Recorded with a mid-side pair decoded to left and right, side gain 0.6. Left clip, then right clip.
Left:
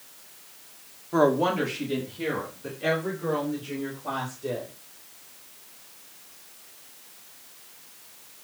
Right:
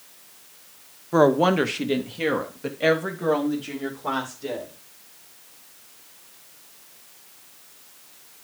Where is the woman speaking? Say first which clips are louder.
Right 4 dB; 25° right, 1.3 m; by 4.7 s 80° right, 4.5 m.